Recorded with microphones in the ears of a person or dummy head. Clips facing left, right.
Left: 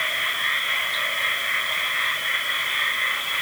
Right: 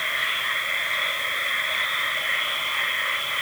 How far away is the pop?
I don't hear a pop.